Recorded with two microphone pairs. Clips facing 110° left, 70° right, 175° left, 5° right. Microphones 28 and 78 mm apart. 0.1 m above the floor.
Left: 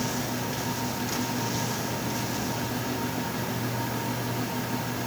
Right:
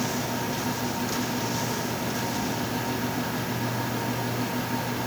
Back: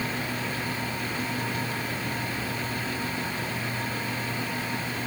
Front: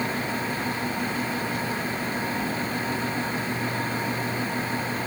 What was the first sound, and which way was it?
Only background noise.